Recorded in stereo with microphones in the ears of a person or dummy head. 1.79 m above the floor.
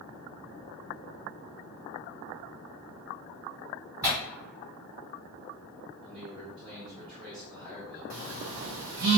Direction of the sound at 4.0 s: 10° right (ahead or behind).